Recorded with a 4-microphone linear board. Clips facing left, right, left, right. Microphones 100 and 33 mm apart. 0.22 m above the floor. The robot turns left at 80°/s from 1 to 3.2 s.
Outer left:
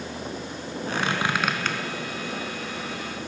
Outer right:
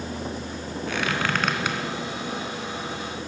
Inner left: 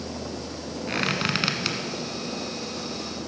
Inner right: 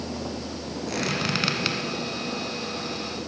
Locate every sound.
0.9 s a squeak: 35° left (ahead or behind), 1.6 m; by 1.8 s 15° right (ahead or behind), 1.6 m